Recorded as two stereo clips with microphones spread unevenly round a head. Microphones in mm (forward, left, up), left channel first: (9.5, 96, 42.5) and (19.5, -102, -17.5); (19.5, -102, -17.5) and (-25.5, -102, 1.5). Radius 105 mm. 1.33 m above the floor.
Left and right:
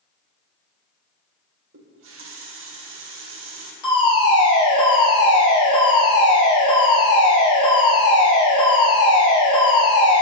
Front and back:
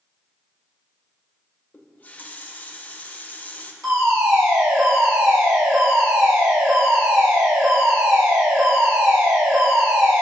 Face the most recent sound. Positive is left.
turn(degrees=165)